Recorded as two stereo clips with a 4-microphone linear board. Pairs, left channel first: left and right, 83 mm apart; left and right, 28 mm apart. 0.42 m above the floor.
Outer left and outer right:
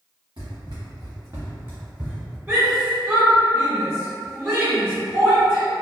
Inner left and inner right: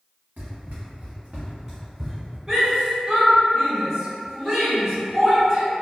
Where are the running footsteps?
75° right (ahead or behind), 1.9 m; by 2.4 s centre (ahead or behind), 1.7 m.